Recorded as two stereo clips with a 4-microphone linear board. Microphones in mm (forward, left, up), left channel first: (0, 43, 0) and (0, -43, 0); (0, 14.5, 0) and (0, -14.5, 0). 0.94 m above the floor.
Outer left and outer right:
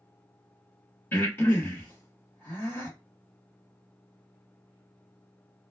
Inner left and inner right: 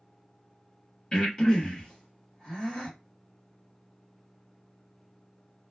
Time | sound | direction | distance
1.1 | breathing | 20° left (ahead or behind) | 1.6 m